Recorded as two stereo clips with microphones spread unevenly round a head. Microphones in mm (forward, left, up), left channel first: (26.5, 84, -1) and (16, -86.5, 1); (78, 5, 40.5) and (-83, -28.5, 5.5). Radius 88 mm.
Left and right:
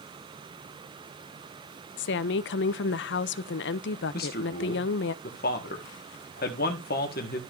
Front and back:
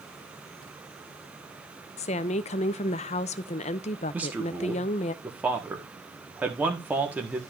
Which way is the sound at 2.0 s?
65° left.